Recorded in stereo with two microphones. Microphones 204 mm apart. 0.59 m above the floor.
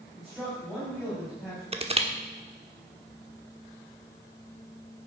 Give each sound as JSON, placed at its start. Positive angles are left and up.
{"t": 0.2, "sound": "a man speaking", "side_deg": 0, "distance_m": 4.5}
{"t": 1.7, "sound": "crushing", "side_deg": -30, "distance_m": 1.2}